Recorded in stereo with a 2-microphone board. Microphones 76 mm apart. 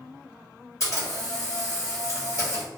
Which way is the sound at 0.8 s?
45° left (ahead or behind).